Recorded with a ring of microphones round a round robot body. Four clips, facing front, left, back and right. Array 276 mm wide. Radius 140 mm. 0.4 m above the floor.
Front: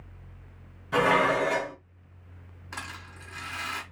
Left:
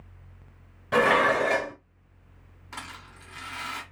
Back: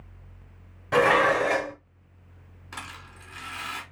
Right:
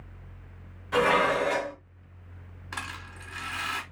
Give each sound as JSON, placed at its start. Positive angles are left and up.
{"t": 0.9, "sound": "dishes clattering", "azimuth_deg": 145, "distance_m": 1.4}
{"t": 2.7, "sound": "a rattle", "azimuth_deg": -95, "distance_m": 1.6}